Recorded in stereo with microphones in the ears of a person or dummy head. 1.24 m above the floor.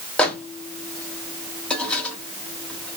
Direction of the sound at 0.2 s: 5° left (ahead or behind).